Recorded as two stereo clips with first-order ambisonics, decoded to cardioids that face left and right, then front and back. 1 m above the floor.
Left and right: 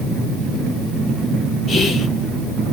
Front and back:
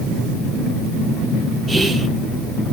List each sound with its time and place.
1.7 s whispering: 105° left, 0.9 m